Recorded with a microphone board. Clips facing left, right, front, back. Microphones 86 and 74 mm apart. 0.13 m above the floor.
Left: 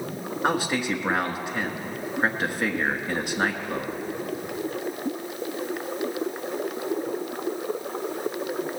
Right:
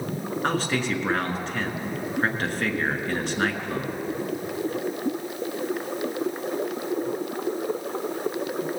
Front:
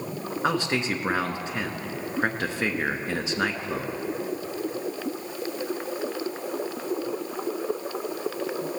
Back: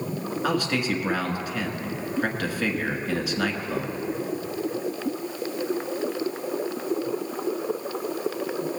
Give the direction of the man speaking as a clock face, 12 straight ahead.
11 o'clock.